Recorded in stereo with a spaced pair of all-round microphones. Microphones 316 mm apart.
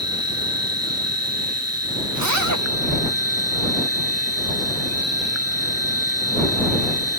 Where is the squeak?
No squeak in this recording.